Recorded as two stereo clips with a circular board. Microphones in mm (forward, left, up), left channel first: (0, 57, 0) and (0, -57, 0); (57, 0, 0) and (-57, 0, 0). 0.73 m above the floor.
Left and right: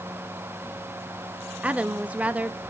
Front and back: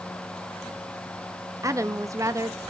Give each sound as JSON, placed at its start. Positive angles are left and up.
{"t": 1.6, "sound": "a woman speaking", "azimuth_deg": -160, "distance_m": 0.5}